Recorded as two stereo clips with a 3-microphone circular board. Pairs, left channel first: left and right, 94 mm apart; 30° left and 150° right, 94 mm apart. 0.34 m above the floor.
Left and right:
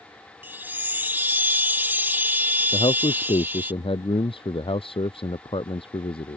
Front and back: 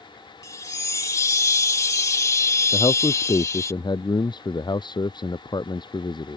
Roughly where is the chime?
Ahead right.